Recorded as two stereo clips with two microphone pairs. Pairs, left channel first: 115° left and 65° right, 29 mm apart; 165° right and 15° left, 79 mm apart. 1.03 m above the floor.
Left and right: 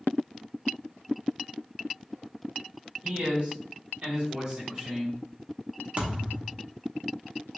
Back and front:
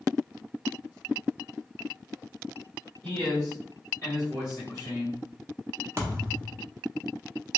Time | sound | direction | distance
3.0 | a man speaking | 95° right | 1.9 m
6.0 | a thud | 30° right | 0.8 m